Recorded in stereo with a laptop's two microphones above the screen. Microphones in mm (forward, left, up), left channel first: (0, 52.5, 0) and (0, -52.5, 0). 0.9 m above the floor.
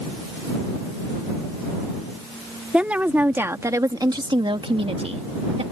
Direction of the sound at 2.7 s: 10° right (ahead or behind).